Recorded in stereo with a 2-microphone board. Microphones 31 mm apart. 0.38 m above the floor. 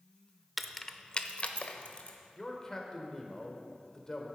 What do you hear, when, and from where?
0.6 s keys jangling: 5° right (ahead or behind), 0.5 m; by 2.2 s 50° left (ahead or behind), 1.2 m
2.4 s a man speaking: 20° left (ahead or behind), 1.3 m